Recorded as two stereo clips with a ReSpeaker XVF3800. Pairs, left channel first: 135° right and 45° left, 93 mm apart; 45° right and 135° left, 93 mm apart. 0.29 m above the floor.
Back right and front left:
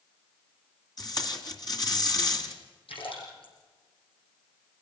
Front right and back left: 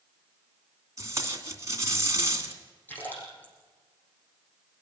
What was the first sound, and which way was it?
Tape being pulled, 170° right.